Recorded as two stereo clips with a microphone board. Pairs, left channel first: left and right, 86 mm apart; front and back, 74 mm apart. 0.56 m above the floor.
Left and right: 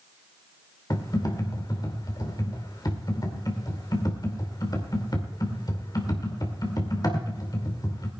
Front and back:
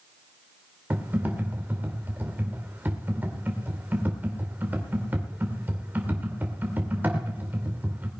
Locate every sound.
0.9 s typing on a keyboard: 120° left, 2 m